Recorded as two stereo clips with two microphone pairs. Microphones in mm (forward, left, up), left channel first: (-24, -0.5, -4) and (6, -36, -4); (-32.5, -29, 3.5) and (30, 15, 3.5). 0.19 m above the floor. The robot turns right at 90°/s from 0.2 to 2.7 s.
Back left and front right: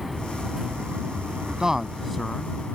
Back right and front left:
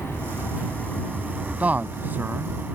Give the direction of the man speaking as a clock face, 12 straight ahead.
12 o'clock.